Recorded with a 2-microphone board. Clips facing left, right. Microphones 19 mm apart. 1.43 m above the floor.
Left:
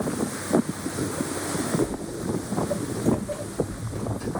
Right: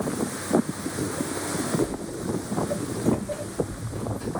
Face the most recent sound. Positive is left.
turn(degrees=25)  # may be behind; listen again after turning